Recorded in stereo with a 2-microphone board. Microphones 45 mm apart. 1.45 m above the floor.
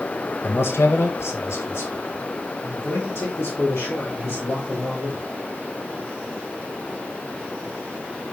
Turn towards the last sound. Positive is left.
turn(degrees=65)  # may be behind; listen again after turning